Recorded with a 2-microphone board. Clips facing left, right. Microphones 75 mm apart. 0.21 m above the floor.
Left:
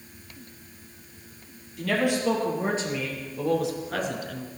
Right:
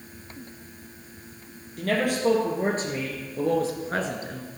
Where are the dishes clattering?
No dishes clattering in this recording.